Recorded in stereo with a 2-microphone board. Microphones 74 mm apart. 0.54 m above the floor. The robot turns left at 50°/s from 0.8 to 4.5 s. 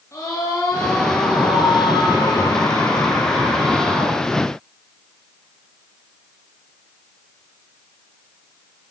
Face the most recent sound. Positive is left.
turn(degrees=-45)